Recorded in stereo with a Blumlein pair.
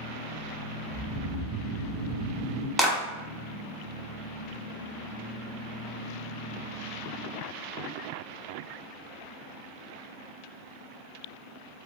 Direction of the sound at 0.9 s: 5° right.